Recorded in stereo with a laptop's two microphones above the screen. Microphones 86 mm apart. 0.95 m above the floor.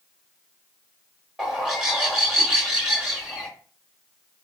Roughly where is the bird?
Centre.